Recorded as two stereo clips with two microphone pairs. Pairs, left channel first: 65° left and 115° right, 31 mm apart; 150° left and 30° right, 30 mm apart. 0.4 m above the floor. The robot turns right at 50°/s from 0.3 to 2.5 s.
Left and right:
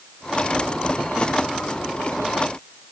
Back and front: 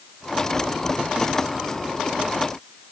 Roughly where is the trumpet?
No trumpet in this recording.